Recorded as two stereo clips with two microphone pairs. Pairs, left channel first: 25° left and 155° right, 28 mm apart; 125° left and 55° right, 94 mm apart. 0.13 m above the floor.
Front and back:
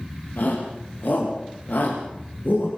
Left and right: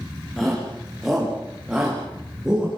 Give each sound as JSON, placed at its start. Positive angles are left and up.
{"t": 0.4, "sound": "a shout", "azimuth_deg": 35, "distance_m": 9.5}